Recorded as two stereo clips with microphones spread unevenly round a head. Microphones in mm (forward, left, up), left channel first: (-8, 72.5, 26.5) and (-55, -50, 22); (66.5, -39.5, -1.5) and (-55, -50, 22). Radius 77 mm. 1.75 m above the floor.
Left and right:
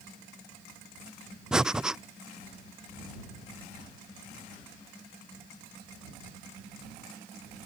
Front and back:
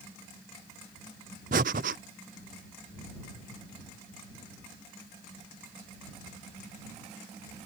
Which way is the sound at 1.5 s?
165° left.